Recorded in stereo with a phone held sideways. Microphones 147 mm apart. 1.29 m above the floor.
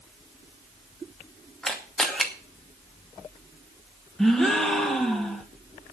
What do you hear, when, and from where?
1.6 s a camera shutter: centre (ahead or behind), 2.5 m
4.2 s a gasp: centre (ahead or behind), 2 m